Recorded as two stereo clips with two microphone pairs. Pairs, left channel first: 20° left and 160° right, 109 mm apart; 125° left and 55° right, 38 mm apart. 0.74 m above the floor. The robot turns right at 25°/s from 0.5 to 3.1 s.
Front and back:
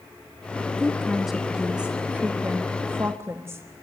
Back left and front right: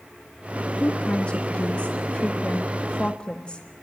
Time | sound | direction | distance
0.8 | a woman speaking | 100° left | 1.2 m